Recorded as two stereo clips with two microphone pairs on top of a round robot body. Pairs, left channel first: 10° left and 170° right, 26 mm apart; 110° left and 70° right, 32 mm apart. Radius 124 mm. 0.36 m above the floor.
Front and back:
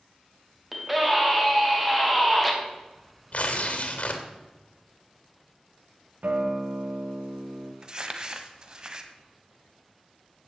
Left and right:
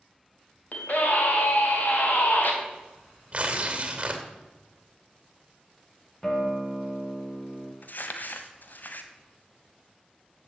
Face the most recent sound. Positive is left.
turn(degrees=130)